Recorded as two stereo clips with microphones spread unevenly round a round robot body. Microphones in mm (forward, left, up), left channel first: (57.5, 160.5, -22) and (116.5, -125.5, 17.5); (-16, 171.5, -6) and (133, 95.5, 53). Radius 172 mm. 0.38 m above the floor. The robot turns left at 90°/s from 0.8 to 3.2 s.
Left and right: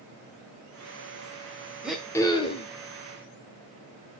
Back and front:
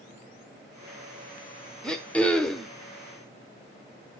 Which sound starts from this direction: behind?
Throat clearing, at 1.8 s.